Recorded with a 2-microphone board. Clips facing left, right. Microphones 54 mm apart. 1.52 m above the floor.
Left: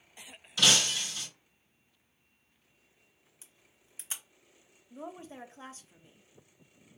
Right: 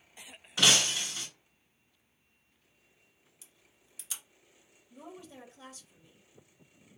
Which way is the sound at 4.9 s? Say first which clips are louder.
Left 4 dB; 35° left (ahead or behind).